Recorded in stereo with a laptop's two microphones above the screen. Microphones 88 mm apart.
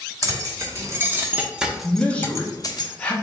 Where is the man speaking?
15° left (ahead or behind), 0.8 m.